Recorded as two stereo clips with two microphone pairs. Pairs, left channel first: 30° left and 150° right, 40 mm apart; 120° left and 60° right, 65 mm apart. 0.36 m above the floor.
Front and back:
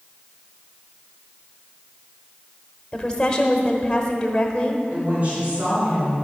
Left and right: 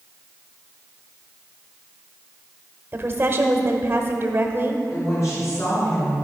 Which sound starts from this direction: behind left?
A woman speaking, at 4.9 s.